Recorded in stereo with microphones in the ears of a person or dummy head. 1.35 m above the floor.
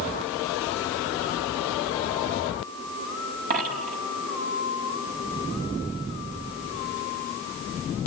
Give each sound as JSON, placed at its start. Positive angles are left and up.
{"t": 3.5, "sound": "a dropped coin", "side_deg": -50, "distance_m": 5.0}